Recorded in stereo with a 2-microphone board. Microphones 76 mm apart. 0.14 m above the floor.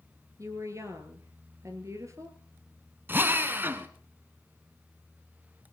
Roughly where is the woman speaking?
Right.